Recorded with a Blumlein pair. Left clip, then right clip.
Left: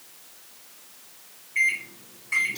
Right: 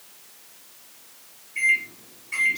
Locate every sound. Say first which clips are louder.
1.6 s a microwave: right 2 dB; 20° left, 1.0 m